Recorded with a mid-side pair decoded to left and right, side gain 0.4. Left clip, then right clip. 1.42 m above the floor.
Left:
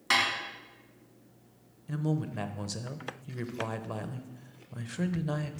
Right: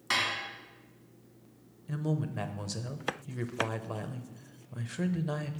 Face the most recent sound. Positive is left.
turn(degrees=0)